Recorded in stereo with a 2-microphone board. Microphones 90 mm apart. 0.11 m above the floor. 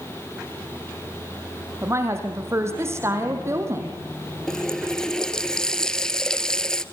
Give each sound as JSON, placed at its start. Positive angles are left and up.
{"t": 1.8, "sound": "a woman speaking", "side_deg": -30, "distance_m": 3.5}
{"t": 4.5, "sound": "a running tap", "side_deg": 5, "distance_m": 1.4}